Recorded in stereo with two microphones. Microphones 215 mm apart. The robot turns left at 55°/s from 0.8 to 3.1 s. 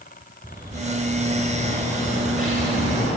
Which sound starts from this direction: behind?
A bird, at 0.4 s.